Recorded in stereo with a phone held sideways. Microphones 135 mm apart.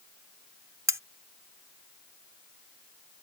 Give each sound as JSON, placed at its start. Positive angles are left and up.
{"t": 0.9, "sound": "cutlery clinking", "side_deg": -20}